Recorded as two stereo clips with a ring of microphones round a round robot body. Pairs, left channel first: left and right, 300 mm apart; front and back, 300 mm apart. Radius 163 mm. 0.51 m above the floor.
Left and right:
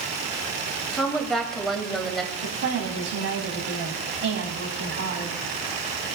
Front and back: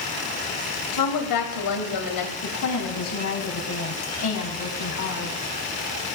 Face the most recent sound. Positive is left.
turn(degrees=-40)